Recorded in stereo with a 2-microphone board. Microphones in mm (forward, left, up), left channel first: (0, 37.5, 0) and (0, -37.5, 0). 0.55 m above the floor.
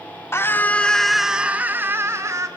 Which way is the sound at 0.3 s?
35° left (ahead or behind).